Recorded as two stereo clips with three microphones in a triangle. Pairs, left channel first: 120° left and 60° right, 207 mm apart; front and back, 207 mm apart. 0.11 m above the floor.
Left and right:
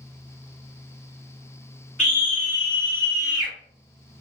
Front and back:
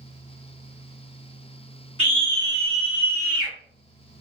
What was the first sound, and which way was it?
A scream, 45° left.